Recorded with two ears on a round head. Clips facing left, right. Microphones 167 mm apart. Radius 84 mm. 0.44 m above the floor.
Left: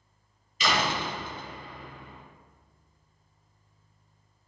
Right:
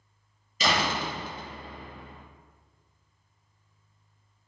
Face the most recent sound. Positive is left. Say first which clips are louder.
# even
turn(degrees=-35)  # may be behind; listen again after turning